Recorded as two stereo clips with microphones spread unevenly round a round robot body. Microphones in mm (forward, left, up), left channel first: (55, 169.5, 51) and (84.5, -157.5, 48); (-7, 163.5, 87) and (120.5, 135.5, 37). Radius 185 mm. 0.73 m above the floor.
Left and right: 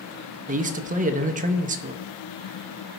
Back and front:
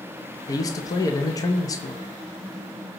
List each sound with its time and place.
0.5 s a man speaking: 115° right, 0.6 m